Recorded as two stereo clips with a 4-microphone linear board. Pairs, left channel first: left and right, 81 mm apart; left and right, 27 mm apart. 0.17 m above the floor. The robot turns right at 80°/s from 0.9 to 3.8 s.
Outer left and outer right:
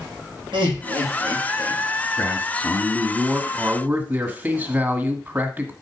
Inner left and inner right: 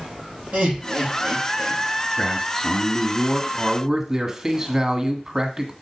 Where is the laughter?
65° right (ahead or behind), 4.5 m; by 1.8 s 35° right (ahead or behind), 4.5 m.